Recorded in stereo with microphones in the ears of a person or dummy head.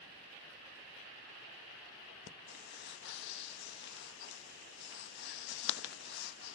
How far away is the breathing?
About 1.3 m.